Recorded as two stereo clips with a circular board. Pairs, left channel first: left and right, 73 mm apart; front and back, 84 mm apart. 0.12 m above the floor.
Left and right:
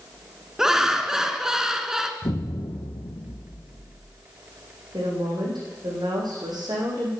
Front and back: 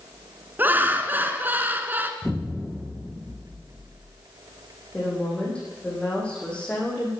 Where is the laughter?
165° right, 1.2 m.